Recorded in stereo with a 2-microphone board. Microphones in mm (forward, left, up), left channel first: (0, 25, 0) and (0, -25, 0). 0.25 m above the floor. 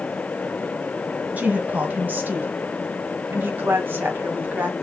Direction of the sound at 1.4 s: 35° right (ahead or behind).